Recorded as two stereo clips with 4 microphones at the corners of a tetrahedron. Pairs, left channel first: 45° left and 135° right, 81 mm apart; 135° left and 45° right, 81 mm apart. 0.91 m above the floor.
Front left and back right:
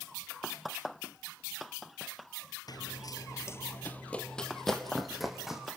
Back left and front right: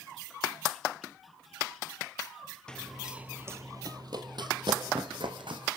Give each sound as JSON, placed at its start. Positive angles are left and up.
{"t": 2.7, "sound": "running footsteps", "azimuth_deg": 60, "distance_m": 1.5}